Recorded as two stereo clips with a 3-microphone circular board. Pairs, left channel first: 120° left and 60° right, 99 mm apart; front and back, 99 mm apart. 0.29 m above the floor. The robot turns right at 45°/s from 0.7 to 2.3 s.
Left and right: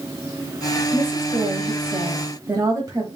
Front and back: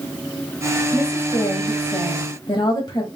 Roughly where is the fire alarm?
I don't hear a fire alarm.